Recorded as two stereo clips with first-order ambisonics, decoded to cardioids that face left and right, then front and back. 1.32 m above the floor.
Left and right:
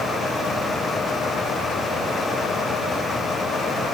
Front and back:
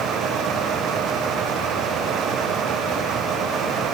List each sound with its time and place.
Only background noise.